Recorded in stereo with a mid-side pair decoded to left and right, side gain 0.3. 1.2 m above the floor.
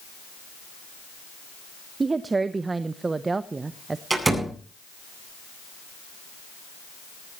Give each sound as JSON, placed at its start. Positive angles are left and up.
{"t": 2.0, "sound": "a woman speaking", "azimuth_deg": -45, "distance_m": 0.9}
{"t": 4.1, "sound": "a door slam", "azimuth_deg": -35, "distance_m": 9.0}